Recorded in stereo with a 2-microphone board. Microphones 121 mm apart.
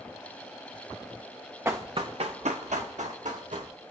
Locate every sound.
1.6 s running footsteps: 20° right (ahead or behind), 0.7 m; by 3.7 s 85° right, 2 m